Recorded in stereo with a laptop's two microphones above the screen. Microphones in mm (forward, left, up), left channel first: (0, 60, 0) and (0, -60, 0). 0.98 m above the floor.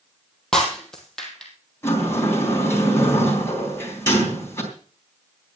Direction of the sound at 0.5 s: 5° left (ahead or behind).